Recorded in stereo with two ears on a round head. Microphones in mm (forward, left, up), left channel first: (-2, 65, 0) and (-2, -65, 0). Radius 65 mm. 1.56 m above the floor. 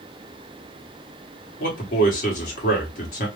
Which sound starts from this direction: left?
A man speaking, at 1.6 s.